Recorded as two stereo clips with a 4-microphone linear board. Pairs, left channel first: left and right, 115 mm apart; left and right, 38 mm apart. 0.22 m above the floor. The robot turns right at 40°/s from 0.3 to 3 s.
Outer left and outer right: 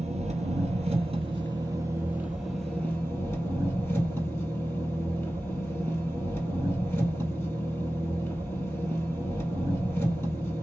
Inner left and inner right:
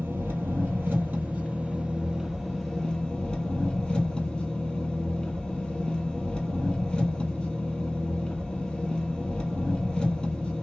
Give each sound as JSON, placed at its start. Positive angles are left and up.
{"t": 0.0, "sound": "an engine running", "azimuth_deg": -90, "distance_m": 1.5}